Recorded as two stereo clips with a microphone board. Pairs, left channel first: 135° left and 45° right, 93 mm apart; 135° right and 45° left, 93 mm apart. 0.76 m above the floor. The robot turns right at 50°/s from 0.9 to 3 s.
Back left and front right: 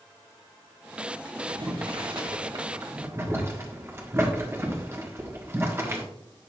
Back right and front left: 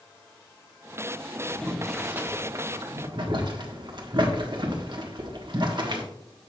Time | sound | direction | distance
1.5 | boiling | 60° right | 1.4 m